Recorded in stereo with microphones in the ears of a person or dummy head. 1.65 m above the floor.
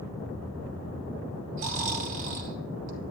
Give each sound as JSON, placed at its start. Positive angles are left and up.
{"t": 1.6, "sound": "snoring", "side_deg": -40, "distance_m": 0.9}